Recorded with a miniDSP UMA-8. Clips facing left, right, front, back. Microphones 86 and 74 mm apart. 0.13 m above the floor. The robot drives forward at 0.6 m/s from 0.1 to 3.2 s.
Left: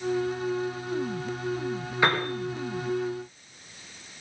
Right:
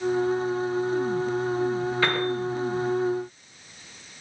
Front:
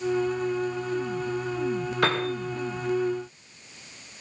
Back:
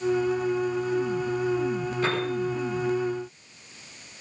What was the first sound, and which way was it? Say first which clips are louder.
A piano: left 3 dB, front 3 dB; 15° left.